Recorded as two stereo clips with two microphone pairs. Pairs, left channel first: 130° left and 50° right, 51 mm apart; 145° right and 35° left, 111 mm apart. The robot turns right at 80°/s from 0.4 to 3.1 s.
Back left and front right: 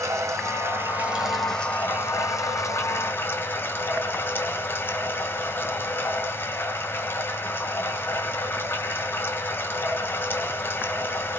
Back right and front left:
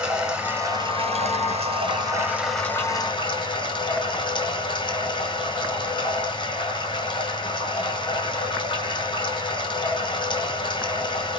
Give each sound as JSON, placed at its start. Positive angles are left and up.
{"t": 0.0, "sound": "running water", "azimuth_deg": -45, "distance_m": 1.6}